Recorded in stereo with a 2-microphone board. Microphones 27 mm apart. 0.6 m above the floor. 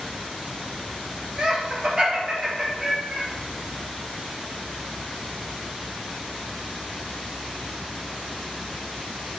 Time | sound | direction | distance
1.4 | laughter | 30° right (ahead or behind) | 0.9 m